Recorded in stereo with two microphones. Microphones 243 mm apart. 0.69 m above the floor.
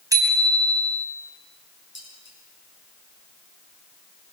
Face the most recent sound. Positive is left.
turn(degrees=50)  # may be behind; listen again after turning